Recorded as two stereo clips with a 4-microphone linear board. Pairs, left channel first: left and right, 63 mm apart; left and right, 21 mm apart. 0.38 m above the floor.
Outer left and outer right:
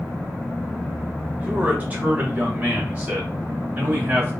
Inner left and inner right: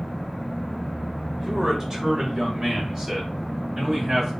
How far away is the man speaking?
About 0.9 m.